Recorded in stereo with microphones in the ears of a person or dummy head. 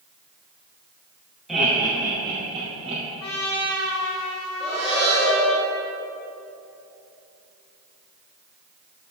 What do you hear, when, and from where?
1.5 s laughter: centre (ahead or behind), 1.0 m; by 3.0 s 35° right (ahead or behind), 1.5 m
3.2 s a trumpet: 80° left, 0.6 m
4.6 s breathing: 5° left (ahead or behind), 2.0 m